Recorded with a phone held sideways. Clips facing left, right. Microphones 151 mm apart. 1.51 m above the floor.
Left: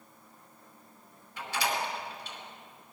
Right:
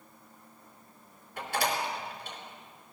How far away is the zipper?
No zipper in this recording.